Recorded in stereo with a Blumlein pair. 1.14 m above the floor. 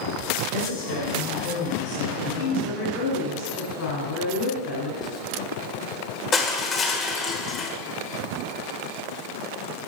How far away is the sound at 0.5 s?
About 5 m.